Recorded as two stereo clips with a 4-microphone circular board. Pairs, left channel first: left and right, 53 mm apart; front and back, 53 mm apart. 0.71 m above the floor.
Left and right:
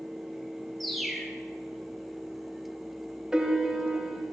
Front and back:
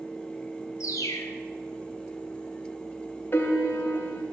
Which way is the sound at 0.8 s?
Straight ahead.